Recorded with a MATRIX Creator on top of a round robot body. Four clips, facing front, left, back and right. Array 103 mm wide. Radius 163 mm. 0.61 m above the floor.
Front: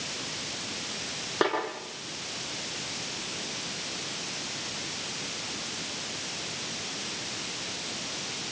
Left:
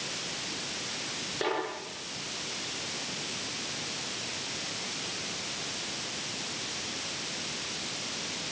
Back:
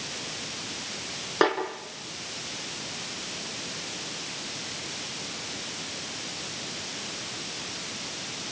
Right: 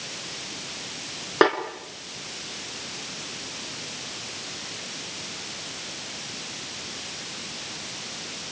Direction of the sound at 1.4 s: 100° right.